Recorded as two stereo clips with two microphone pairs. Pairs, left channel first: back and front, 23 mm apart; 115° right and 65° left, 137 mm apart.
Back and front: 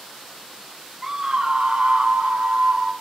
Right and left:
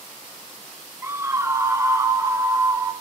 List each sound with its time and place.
1.0 s a scream: 35° left, 0.9 m; by 2.9 s straight ahead, 1.7 m